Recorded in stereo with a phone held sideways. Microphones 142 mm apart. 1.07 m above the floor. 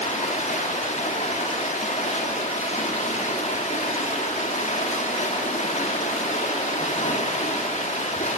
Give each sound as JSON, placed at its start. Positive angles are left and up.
{"t": 0.0, "sound": "running water", "side_deg": 55, "distance_m": 1.4}